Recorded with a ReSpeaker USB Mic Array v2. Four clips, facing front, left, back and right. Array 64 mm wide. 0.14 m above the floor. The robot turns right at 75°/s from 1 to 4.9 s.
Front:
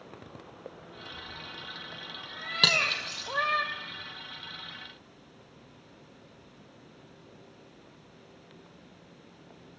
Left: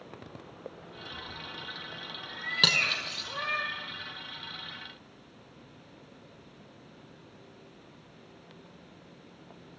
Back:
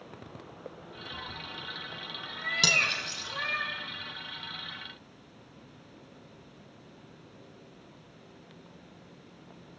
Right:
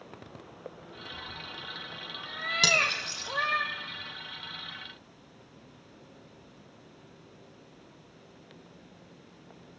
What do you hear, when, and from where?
1.1 s a cat meowing: 170° left, 1.0 m; by 3.6 s 5° right, 1.0 m
2.6 s cutlery clinking: 35° left, 0.8 m; by 3.3 s 85° left, 0.8 m